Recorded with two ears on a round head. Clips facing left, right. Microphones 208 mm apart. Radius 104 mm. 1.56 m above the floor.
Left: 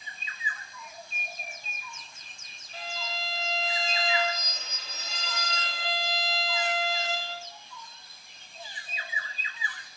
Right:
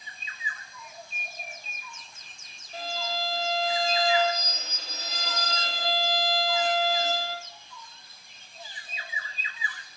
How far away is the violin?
About 1.2 m.